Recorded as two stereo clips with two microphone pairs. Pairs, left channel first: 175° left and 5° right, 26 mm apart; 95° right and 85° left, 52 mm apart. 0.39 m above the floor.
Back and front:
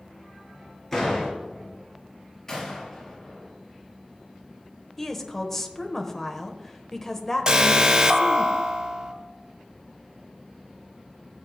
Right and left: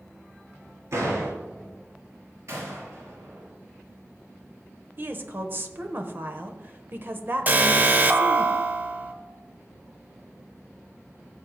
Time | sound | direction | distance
0.9 | a door slam | 100° left | 5 m
2.5 | a gunshot | 110° left | 4.5 m
5.0 | a woman speaking | 105° left | 1.1 m
7.5 | an alarm | 45° left | 0.8 m